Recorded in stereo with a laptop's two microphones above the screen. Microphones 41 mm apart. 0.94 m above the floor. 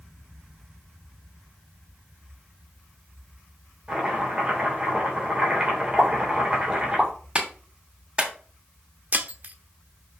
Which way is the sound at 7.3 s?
25° right (ahead or behind).